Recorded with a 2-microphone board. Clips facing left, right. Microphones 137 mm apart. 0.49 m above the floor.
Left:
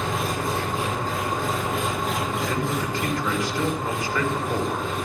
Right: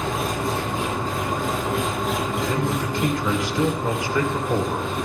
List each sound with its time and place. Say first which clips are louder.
0.0 s an engine running: right 1 dB; centre (ahead or behind), 6 m
2.5 s a man speaking: right 2 dB; 20° right (ahead or behind), 2 m